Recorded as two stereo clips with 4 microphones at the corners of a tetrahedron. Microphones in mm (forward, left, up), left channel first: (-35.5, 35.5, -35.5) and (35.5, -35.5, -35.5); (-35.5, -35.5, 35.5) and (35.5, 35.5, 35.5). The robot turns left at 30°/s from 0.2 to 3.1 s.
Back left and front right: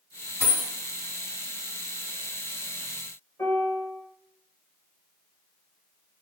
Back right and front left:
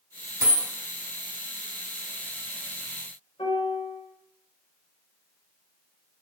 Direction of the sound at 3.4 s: 165° right.